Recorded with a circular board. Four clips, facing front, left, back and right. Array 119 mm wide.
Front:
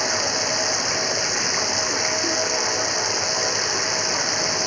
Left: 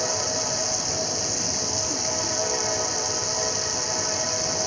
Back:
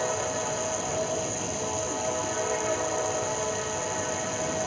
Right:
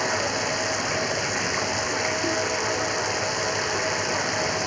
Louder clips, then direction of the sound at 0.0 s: Right 3 dB, front 3 dB; 45° right.